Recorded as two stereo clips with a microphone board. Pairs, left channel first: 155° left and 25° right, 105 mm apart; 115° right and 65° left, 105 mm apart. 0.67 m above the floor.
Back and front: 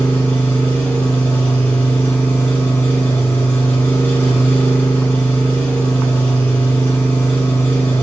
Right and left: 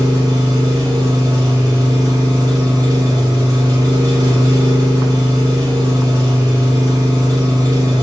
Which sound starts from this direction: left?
An engine running, at 0.0 s.